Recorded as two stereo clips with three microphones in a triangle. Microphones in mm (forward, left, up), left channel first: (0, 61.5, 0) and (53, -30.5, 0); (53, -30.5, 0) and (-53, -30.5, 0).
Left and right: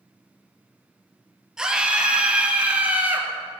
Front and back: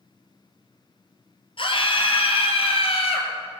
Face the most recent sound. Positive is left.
turn(degrees=15)